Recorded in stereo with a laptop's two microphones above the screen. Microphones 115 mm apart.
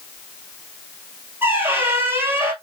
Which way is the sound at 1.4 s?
20° right (ahead or behind).